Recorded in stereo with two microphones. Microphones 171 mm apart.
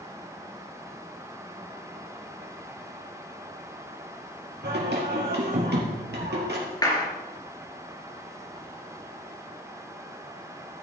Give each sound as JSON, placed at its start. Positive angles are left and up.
{"t": 4.6, "sound": "singing", "side_deg": -80, "distance_m": 3.5}
{"t": 6.8, "sound": "a clap", "side_deg": 25, "distance_m": 3.5}